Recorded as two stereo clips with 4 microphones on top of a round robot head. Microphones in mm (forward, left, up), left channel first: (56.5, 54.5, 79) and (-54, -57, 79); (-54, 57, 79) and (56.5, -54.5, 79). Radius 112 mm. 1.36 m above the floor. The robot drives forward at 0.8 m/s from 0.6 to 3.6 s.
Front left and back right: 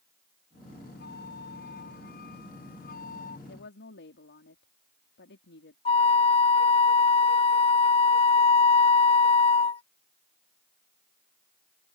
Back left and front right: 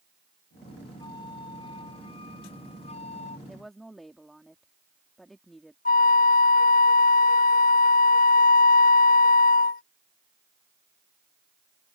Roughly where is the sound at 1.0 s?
Left.